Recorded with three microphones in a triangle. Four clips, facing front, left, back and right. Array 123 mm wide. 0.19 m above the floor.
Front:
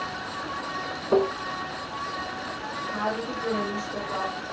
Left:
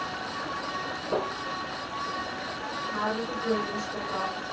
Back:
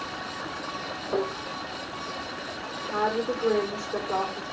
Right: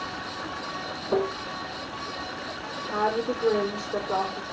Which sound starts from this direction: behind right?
A woman speaking, at 2.9 s.